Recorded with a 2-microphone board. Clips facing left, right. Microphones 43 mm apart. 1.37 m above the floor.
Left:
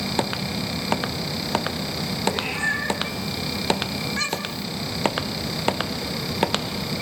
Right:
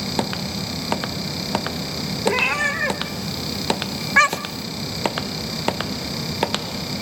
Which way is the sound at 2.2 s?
75° right (ahead or behind).